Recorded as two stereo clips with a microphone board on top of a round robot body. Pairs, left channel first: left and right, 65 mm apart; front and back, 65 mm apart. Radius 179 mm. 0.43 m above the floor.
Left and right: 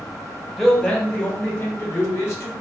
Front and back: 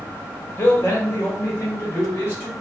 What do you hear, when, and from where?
0.6 s a man speaking: 10° left, 1.1 m; by 2.5 s 50° left, 1.7 m